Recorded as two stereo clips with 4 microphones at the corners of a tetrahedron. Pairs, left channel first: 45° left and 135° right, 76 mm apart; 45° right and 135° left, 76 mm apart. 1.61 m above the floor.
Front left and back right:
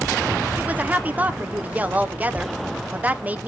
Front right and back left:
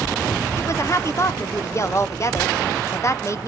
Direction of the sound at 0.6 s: 80° right.